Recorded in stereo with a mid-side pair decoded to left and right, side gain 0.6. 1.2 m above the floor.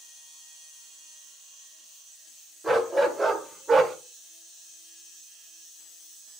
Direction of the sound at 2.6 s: 5° right.